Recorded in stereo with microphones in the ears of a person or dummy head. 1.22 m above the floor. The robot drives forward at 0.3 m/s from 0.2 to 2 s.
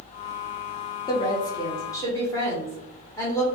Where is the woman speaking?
20° left (ahead or behind), 0.7 m; by 3.5 s 15° left (ahead or behind), 0.9 m.